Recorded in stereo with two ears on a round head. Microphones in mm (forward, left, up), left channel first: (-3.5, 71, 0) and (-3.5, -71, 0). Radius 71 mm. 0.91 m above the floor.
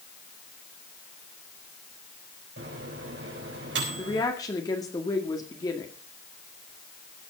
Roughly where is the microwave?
Right.